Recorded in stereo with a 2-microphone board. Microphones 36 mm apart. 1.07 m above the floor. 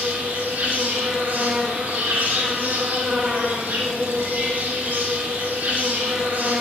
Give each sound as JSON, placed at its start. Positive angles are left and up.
{"t": 0.0, "sound": "an insect", "side_deg": -50, "distance_m": 2.0}